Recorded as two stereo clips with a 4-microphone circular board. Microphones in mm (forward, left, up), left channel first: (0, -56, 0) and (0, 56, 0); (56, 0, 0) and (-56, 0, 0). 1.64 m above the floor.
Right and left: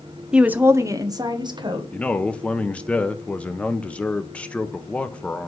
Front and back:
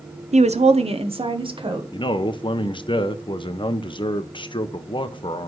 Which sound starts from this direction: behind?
A woman speaking, at 0.3 s.